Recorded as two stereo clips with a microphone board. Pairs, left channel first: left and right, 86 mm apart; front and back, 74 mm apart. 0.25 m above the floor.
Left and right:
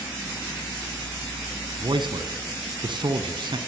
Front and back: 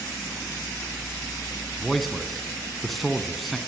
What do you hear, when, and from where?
1.8 s a man speaking: 90° right, 2 m